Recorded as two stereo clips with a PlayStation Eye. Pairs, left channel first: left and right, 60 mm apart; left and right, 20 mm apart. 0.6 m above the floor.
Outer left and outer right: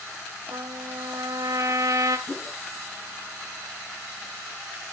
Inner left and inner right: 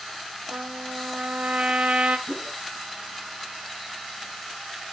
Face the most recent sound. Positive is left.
turn(degrees=35)  # may be behind; listen again after turning